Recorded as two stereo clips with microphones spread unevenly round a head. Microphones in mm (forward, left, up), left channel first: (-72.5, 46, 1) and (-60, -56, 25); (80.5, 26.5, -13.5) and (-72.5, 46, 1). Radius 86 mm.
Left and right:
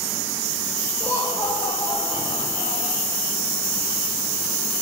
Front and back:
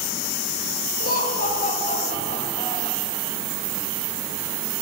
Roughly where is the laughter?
Ahead.